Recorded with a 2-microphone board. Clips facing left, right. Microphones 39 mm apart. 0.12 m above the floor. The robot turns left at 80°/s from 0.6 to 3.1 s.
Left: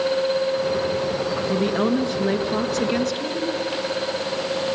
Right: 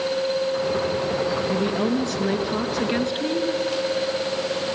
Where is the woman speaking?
80° left, 1.3 m; by 3.5 s 45° right, 1.3 m.